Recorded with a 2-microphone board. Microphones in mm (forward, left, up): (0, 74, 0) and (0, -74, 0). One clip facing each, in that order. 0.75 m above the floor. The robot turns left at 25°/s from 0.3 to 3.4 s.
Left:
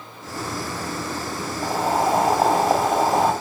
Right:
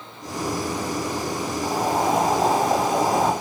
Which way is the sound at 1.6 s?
80° left.